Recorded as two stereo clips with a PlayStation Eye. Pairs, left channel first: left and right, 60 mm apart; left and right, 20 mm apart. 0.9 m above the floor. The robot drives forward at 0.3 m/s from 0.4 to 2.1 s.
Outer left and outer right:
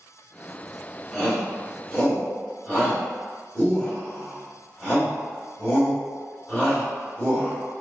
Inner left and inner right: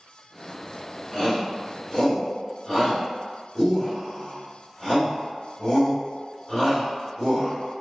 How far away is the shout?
About 2.0 m.